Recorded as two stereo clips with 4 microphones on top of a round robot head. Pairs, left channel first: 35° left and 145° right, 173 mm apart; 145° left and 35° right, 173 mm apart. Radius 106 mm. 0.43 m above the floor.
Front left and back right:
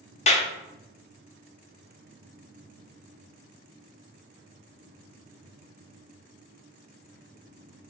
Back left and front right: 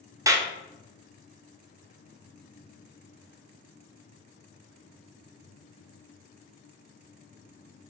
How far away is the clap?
About 0.6 m.